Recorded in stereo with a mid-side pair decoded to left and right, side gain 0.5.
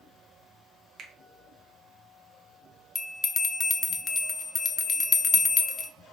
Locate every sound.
1.0 s a finger snap: 55° right, 1.0 m
3.0 s a bell: 30° left, 0.6 m